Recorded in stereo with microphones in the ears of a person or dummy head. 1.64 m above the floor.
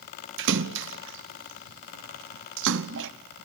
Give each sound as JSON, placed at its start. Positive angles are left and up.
{"t": 0.4, "sound": "a splash", "side_deg": -70, "distance_m": 0.9}